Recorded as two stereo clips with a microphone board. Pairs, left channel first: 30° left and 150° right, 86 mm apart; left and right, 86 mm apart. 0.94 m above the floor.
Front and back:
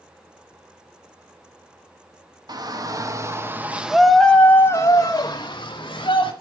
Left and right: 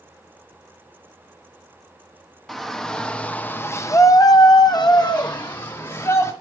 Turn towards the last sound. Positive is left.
turn(degrees=45)